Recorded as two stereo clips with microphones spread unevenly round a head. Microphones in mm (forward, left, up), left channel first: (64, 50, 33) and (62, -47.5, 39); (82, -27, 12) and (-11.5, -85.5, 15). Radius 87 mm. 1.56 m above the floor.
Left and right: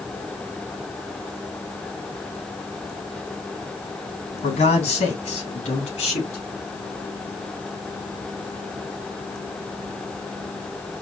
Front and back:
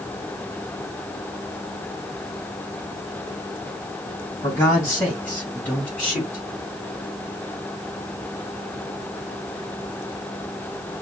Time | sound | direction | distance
4.4 | a man speaking | 105° left | 2 m